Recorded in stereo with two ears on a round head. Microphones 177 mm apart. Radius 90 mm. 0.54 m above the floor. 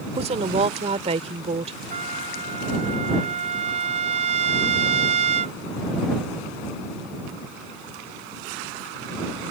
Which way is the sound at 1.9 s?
35° right (ahead or behind).